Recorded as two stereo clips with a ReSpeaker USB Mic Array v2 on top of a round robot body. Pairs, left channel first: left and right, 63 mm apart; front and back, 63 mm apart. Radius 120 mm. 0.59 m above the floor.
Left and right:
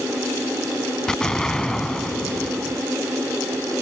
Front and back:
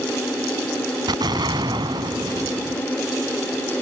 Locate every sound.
1.1 s an explosion: 170° left